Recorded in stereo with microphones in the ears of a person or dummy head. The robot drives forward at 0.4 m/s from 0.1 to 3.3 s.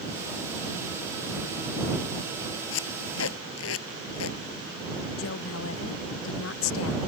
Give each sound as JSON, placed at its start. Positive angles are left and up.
{"t": 2.7, "sound": "tape being pulled", "side_deg": 80}
{"t": 5.2, "sound": "a woman speaking", "side_deg": 85}